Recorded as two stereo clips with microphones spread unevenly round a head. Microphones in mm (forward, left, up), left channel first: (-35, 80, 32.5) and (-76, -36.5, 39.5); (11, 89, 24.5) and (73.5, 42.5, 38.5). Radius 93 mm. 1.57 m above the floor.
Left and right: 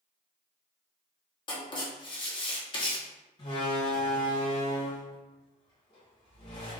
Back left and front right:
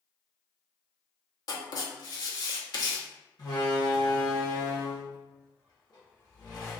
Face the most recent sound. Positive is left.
turn(degrees=110)